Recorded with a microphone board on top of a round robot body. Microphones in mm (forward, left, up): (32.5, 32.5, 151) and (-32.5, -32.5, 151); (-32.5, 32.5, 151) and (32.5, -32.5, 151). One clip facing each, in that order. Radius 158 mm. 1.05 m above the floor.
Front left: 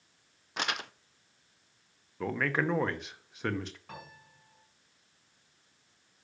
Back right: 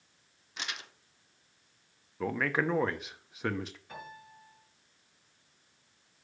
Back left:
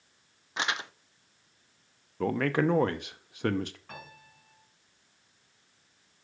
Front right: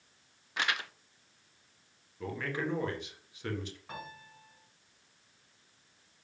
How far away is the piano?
About 5.5 m.